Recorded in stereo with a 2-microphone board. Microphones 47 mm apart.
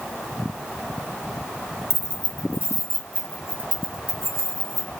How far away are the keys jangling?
About 0.6 m.